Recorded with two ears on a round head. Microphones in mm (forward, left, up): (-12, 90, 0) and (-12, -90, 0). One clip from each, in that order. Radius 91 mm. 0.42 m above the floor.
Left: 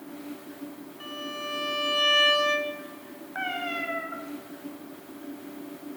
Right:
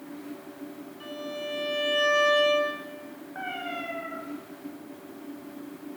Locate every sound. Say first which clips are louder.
1.0 s a violin: even; 20° left (ahead or behind), 4 m
3.4 s a cat meowing: left 4 dB; 65° left (ahead or behind), 6.5 m